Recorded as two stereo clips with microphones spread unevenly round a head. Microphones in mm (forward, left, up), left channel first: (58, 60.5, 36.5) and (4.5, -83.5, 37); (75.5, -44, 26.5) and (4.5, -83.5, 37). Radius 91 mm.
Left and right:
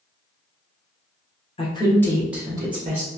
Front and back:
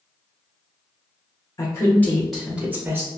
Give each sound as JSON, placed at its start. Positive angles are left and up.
{"t": 1.6, "sound": "a woman speaking", "azimuth_deg": 35, "distance_m": 0.8}